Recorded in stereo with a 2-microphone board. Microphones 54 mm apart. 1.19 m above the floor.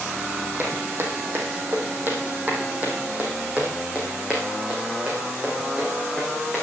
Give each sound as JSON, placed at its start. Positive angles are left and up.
{"t": 0.6, "sound": "footsteps", "side_deg": -50, "distance_m": 3.0}